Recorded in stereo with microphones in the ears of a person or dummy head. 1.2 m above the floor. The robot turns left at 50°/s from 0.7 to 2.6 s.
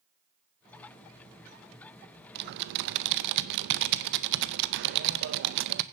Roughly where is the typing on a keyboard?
Right.